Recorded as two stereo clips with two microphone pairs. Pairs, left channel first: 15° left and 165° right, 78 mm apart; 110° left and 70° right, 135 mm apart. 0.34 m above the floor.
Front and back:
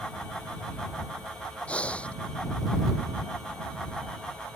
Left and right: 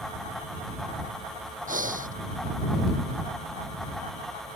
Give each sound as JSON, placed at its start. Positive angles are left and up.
{"t": 1.7, "sound": "breathing", "azimuth_deg": -60}